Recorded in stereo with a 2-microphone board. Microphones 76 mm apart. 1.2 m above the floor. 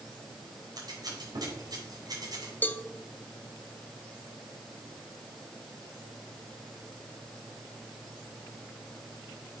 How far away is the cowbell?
About 0.6 m.